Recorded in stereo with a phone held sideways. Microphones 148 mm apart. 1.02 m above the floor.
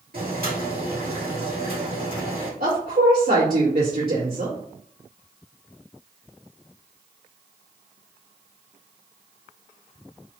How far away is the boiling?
About 2.5 m.